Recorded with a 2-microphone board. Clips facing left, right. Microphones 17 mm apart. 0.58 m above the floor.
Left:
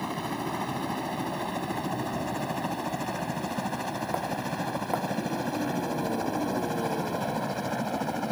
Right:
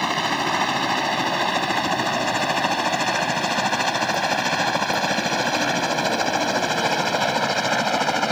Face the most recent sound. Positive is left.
turn(degrees=-70)  # may be behind; listen again after turning